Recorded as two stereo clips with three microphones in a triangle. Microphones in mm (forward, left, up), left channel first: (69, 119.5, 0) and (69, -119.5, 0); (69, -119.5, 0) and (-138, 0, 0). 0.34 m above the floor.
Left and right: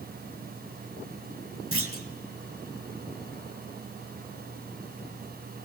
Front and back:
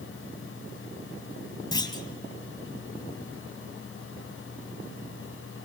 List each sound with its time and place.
1.7 s a clunk: 100° right, 1.9 m